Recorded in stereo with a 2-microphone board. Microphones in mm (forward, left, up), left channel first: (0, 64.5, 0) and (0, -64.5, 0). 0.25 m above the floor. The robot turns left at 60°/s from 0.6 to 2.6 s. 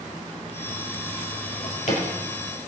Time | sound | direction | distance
1.4 | a drawer | 80° left | 4 m